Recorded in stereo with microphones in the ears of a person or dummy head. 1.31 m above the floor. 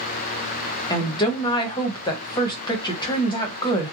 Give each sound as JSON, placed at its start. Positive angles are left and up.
{"t": 0.9, "sound": "a woman speaking", "side_deg": 25, "distance_m": 0.9}